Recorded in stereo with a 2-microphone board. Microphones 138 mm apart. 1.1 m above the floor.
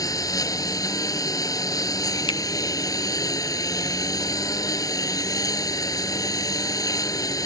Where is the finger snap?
35° left (ahead or behind).